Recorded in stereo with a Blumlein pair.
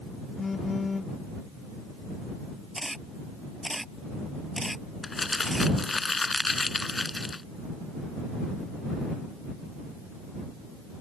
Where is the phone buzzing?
15° left.